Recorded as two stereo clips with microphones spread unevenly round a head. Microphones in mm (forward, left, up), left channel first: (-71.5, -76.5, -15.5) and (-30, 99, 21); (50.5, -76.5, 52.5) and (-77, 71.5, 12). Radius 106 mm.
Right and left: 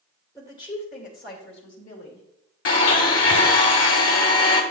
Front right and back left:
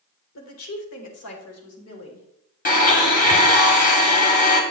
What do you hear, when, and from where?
0.3 s a woman speaking: 20° right, 1.7 m; by 2.2 s 70° right, 3 m
2.6 s a blender: 100° right, 1.9 m